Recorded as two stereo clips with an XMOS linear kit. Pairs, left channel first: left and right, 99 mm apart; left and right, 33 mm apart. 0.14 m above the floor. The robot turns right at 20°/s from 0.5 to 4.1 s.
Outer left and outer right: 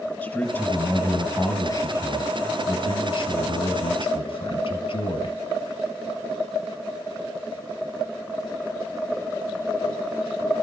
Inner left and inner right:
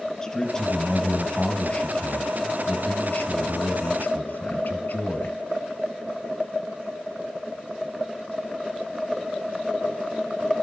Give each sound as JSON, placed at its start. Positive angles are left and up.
{"t": 0.2, "sound": "a man speaking", "azimuth_deg": 20, "distance_m": 3.0}